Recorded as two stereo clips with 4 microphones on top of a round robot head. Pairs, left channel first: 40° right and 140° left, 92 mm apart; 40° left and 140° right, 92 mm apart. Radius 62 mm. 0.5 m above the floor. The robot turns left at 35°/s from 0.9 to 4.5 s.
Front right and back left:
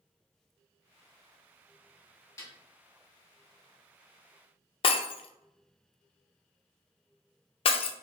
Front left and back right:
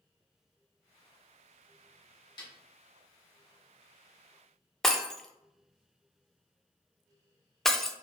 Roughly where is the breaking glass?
Ahead right.